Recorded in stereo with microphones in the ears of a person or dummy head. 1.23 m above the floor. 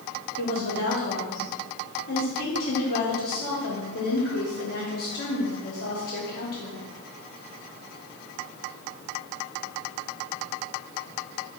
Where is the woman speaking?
50° left (ahead or behind), 1.0 m.